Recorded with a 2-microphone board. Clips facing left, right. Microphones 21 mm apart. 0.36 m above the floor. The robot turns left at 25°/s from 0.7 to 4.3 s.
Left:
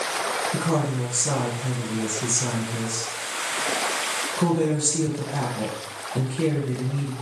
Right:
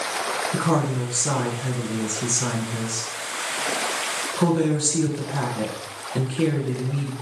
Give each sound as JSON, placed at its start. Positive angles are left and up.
{"t": 0.5, "sound": "a woman speaking", "azimuth_deg": -45, "distance_m": 3.5}